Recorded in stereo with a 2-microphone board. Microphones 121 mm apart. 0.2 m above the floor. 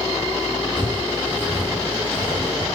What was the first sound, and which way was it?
Footsteps, 40° right (ahead or behind).